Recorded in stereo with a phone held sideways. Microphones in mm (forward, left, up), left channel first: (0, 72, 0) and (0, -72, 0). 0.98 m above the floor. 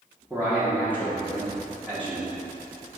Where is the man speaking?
10° right (ahead or behind), 0.9 m.